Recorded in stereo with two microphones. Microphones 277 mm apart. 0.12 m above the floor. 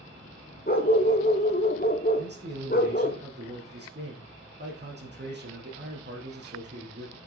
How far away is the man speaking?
About 6 m.